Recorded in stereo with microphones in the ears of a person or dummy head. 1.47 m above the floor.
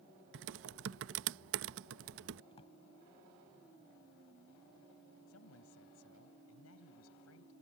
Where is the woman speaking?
85° left.